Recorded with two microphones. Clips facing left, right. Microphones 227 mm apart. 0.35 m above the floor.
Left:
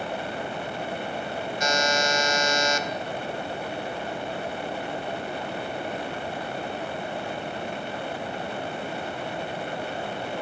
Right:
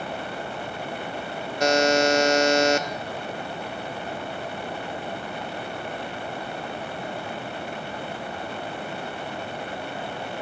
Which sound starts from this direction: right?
A buzzer, at 1.6 s.